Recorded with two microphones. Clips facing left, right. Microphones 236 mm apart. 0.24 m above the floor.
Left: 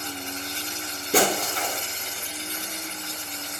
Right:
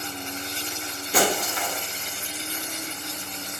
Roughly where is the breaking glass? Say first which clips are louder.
Left 1 dB; left.